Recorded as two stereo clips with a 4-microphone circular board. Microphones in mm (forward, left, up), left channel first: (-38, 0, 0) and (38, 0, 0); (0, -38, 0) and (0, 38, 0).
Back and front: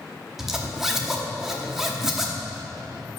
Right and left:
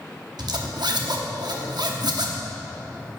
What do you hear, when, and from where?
0.4 s a zipper: 85° left, 0.8 m